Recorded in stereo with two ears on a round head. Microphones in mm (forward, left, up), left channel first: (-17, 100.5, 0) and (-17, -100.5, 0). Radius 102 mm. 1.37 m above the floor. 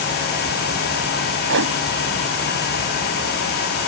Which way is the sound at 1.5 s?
60° right (ahead or behind).